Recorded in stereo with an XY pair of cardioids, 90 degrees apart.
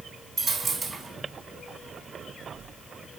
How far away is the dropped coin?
About 3 m.